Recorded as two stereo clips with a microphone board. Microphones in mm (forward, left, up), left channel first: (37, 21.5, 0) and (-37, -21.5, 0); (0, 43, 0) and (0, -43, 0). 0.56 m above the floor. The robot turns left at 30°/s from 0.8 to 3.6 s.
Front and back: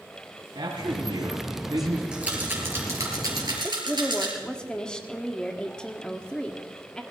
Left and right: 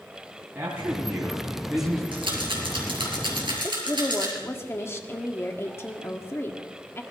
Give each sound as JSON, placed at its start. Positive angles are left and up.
{"t": 0.6, "sound": "a man speaking", "azimuth_deg": -155, "distance_m": 4.0}
{"t": 2.1, "sound": "a rattle", "azimuth_deg": -70, "distance_m": 3.5}
{"t": 3.6, "sound": "a woman speaking", "azimuth_deg": 100, "distance_m": 1.2}